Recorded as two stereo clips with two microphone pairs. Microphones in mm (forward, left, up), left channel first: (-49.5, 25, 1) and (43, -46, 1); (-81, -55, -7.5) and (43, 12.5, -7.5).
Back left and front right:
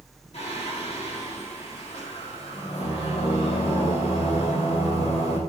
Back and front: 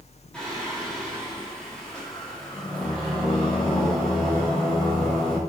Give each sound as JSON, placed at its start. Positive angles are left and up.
{"t": 0.3, "sound": "singing", "azimuth_deg": 125, "distance_m": 4.0}